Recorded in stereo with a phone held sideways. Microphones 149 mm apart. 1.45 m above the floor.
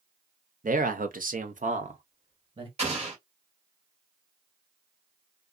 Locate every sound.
0.6 s a man speaking: 65° right (ahead or behind), 0.8 m; by 2.7 s 35° right (ahead or behind), 1.1 m
2.8 s an explosion: 45° right (ahead or behind), 1.5 m